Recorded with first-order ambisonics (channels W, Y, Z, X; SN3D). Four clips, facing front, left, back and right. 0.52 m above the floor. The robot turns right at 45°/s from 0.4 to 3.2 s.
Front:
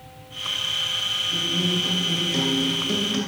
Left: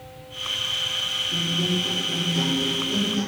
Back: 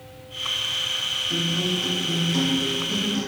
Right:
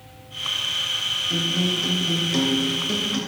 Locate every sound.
1.3 s a guitar: 120° right, 2.5 m; by 3.2 s 35° right, 2.5 m